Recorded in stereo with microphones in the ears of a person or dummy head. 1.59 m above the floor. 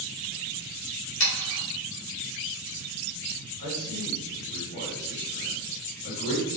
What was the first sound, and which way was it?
Sawing, 80° left.